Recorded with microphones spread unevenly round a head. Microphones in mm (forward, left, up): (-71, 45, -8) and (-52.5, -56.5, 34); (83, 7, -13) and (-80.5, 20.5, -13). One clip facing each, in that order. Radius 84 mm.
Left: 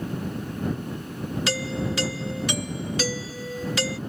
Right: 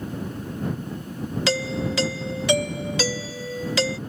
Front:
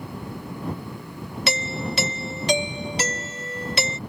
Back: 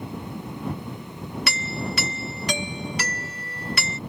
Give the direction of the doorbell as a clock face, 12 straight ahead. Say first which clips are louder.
Right 4 dB, front 4 dB; 2 o'clock.